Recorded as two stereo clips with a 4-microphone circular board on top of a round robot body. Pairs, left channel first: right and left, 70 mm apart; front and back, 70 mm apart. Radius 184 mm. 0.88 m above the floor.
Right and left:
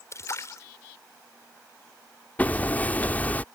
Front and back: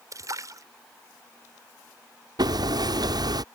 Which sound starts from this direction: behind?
Hammering, at 2.4 s.